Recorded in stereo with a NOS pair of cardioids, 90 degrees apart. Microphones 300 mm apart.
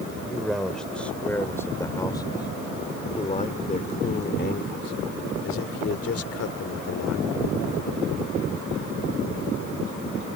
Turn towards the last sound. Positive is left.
turn(degrees=60)